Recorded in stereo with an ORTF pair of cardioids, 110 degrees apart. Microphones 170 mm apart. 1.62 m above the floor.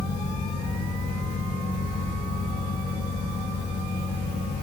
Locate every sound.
0.0 s a fan: 30° left, 0.7 m